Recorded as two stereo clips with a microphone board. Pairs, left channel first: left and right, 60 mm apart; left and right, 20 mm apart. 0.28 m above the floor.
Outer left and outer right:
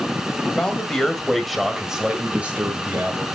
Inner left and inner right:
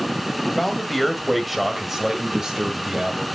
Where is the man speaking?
20° left (ahead or behind), 1.5 m; by 3.2 s 35° right (ahead or behind), 1.5 m.